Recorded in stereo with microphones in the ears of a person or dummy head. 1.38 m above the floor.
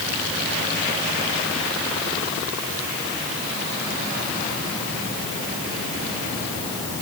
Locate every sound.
Only background noise.